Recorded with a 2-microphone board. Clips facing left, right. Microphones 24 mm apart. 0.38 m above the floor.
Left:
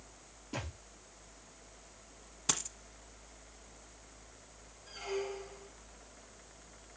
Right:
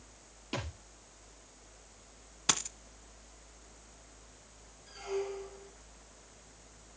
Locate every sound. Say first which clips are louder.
0.5 s a thud: right 3 dB; 65° right (ahead or behind), 5.5 m
2.5 s a dropped coin: right 4 dB; 30° right (ahead or behind), 0.8 m
4.9 s a squeak: right 1 dB; 20° left (ahead or behind), 4.5 m